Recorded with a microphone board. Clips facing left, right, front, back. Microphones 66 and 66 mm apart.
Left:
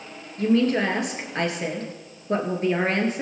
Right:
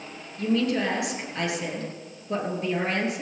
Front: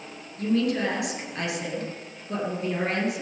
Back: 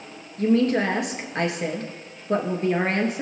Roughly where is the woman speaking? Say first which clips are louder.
Left 4 dB, back 4 dB; behind left.